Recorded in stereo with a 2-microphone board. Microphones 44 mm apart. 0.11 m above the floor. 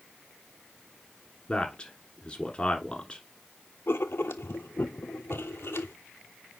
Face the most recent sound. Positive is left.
turn(degrees=70)  # may be behind; listen again after turning